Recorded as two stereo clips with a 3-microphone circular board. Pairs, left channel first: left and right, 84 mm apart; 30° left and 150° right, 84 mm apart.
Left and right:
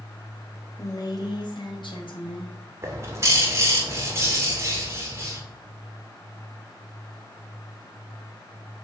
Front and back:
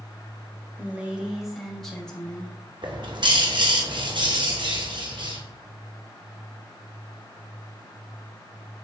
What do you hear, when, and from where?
0.8 s a woman speaking: 140° left, 2.5 m; by 2.6 s 105° left, 3.5 m
2.8 s a bird: 145° right, 2.5 m